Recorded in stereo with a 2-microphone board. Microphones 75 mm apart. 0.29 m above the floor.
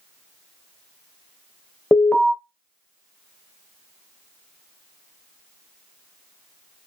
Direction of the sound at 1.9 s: 25° left (ahead or behind).